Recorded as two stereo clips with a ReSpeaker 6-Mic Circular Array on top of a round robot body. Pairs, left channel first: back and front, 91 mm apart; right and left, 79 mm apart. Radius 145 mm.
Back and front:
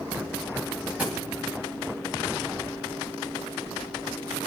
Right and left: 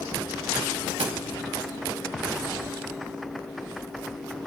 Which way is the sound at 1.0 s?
75° left.